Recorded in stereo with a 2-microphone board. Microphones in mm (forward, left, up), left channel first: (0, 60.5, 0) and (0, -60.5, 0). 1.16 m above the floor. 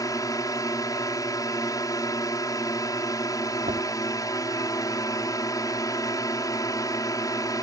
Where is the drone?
30° left (ahead or behind).